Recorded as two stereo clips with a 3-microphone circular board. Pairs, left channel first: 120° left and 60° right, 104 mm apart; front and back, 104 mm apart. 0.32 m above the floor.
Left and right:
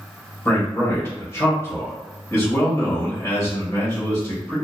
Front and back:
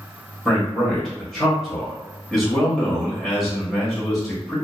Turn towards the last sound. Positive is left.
turn(degrees=85)